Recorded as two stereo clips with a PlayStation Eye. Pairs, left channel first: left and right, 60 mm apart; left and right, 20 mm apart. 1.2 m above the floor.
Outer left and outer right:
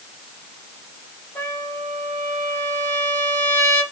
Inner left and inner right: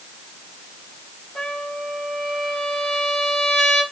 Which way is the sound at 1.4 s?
35° left (ahead or behind).